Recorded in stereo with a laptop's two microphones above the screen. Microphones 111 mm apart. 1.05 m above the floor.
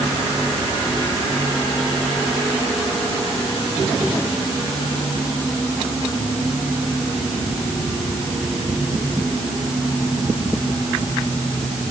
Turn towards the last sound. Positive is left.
No sound to turn to.